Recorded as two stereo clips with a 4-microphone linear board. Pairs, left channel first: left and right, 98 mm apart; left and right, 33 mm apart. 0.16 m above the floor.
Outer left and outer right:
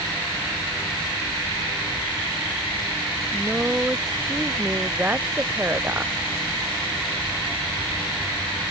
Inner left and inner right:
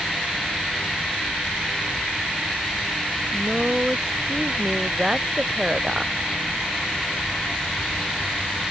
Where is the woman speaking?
15° right (ahead or behind); by 6.1 s 20° right (ahead or behind).